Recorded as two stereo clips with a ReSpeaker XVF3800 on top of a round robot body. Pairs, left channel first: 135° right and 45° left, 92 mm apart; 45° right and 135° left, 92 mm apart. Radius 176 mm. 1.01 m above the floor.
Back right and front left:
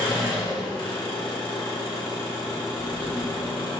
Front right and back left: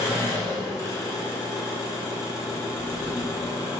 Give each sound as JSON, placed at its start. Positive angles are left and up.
{"t": 0.0, "sound": "an engine running", "azimuth_deg": -105, "distance_m": 1.1}
{"t": 2.8, "sound": "a drawer", "azimuth_deg": -165, "distance_m": 1.4}